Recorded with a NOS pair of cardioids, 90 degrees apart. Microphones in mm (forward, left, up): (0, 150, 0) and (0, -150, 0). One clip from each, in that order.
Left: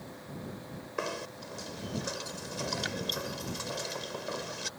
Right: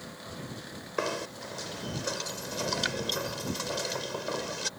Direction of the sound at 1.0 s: 25° right.